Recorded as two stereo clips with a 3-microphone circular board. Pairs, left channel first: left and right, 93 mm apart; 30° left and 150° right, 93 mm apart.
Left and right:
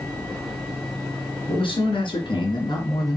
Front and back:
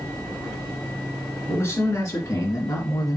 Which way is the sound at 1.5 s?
85° left.